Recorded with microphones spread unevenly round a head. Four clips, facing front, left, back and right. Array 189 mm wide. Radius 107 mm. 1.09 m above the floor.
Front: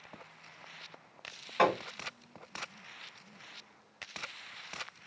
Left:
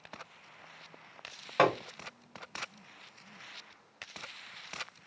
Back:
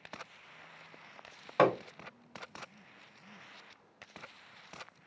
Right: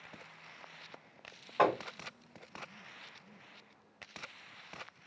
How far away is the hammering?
About 2.0 m.